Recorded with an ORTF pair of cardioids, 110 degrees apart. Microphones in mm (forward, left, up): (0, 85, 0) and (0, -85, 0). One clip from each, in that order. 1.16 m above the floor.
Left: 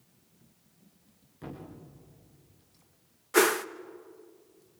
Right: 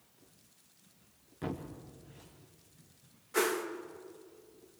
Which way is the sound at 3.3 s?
45° left.